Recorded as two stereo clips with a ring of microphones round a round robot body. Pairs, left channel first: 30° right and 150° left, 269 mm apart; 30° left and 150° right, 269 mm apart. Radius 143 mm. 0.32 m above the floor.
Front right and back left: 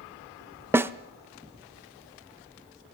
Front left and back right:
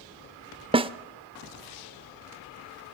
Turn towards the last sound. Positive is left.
turn(degrees=-145)